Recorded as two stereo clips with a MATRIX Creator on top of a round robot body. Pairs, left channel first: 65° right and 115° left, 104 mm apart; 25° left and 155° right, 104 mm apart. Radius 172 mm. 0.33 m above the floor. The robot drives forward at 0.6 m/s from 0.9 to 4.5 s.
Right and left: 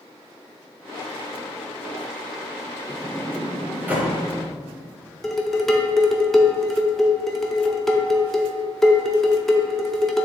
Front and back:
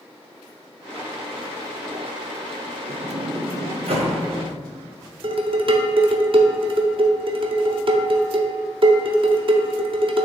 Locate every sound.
2.9 s a sliding door: 165° right, 0.7 m; by 4.2 s 175° right, 1.4 m
5.2 s dishes clattering: 155° right, 0.9 m